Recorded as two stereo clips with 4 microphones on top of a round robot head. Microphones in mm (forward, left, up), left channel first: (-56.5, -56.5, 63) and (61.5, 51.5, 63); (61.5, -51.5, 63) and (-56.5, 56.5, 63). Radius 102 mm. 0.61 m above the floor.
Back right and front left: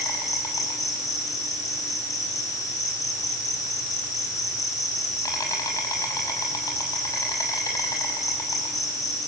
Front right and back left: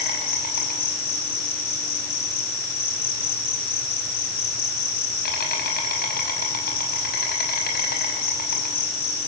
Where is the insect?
70° right, 6.5 m.